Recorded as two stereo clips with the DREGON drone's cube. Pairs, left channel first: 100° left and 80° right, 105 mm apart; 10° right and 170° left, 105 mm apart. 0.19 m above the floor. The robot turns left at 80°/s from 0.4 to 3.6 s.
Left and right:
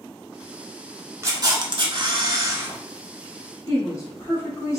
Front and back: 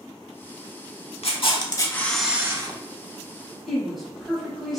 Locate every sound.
1.2 s a camera shutter: 20° right, 0.5 m; by 2.8 s 145° right, 0.5 m
3.7 s a woman speaking: 80° left, 1.2 m